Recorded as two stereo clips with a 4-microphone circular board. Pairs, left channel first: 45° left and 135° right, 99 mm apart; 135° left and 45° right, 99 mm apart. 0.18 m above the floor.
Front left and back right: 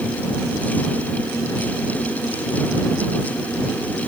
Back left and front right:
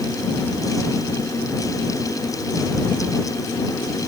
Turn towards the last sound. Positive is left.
No sound to turn to.